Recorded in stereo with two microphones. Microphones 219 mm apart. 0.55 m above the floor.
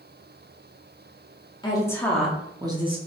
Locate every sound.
1.6 s a woman speaking: 20° left (ahead or behind), 1.0 m; by 3.0 s 25° right (ahead or behind), 1.2 m